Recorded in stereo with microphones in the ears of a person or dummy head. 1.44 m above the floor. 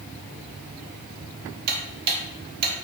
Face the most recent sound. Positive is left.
turn(degrees=-60)  # may be behind; listen again after turning